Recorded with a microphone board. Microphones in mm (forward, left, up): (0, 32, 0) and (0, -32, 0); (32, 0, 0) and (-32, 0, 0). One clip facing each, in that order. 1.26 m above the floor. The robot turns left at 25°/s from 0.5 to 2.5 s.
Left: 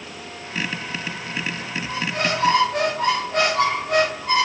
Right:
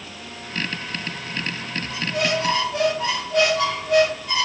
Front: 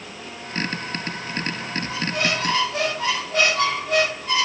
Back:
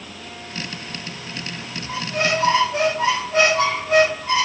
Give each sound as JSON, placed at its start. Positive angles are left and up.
{"t": 1.9, "sound": "a squeak", "azimuth_deg": 130, "distance_m": 2.5}